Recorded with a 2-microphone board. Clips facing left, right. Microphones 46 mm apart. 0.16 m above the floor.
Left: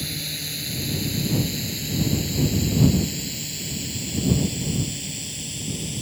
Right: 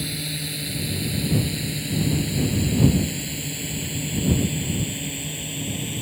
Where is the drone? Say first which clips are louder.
Right 2 dB; 5° right (ahead or behind); by 6.0 s 25° right (ahead or behind).